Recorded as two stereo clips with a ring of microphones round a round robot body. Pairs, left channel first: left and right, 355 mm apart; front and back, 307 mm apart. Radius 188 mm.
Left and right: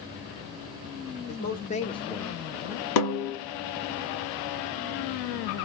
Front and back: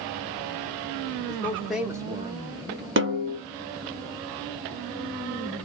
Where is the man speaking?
70° left, 0.8 m; by 2.9 s 165° right, 0.9 m.